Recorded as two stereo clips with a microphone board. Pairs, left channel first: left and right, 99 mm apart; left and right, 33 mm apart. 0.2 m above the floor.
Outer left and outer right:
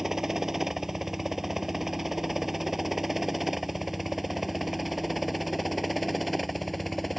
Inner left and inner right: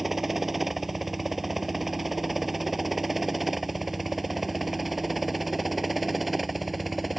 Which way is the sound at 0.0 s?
5° right (ahead or behind).